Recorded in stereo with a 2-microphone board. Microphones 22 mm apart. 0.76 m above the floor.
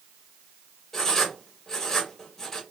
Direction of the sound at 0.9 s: 15° left (ahead or behind).